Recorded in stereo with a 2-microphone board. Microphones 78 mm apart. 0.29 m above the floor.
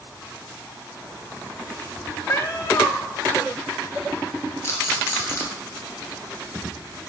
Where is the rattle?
35° left (ahead or behind), 2 m.